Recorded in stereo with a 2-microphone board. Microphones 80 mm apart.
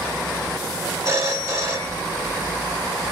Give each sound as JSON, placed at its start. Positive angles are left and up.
{"t": 1.1, "sound": "a phone ringing", "side_deg": -35, "distance_m": 0.8}